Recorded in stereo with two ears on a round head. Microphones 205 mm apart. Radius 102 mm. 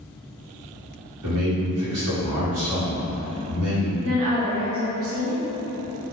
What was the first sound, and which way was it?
A man speaking, 75° right (ahead or behind).